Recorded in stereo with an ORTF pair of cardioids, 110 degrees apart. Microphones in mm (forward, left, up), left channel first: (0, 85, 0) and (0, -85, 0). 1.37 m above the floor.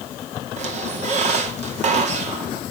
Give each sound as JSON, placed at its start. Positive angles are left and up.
{"t": 0.6, "sound": "a squeak", "azimuth_deg": -40, "distance_m": 2.5}